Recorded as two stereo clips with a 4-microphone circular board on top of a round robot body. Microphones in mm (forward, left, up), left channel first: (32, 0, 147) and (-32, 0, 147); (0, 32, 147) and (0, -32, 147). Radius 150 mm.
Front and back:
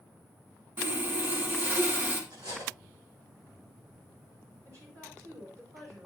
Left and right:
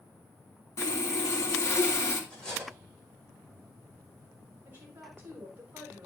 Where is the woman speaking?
150° right, 4.5 m.